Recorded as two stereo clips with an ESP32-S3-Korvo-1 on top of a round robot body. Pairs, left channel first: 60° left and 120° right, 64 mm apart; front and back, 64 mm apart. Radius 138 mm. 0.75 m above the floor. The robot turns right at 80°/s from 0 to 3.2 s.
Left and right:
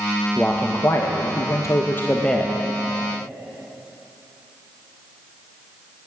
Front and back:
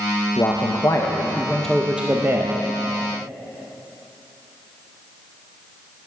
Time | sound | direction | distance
0.4 | a man speaking | 20° right | 0.7 m